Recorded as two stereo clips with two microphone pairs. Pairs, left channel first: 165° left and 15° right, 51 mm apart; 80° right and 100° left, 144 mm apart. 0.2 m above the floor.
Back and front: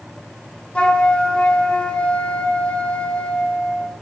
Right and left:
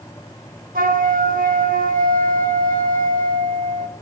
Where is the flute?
95° left, 2 m.